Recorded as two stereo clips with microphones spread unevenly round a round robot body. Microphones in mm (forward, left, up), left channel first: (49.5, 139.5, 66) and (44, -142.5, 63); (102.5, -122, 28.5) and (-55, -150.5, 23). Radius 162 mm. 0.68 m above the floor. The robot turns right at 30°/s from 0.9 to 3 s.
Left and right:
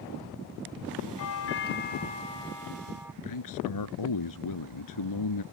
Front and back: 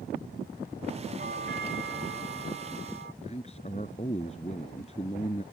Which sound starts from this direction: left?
A man speaking, at 3.2 s.